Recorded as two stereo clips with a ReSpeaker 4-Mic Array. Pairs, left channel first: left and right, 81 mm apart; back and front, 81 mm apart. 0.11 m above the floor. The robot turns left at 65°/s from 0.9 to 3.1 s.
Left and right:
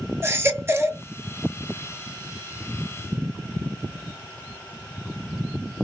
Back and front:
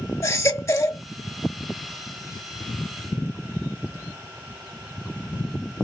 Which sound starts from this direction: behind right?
A baby crying, at 0.2 s.